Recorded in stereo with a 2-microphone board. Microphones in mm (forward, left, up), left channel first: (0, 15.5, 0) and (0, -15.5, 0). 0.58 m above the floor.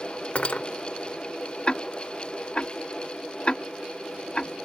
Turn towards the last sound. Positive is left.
turn(degrees=35)  # may be behind; listen again after turning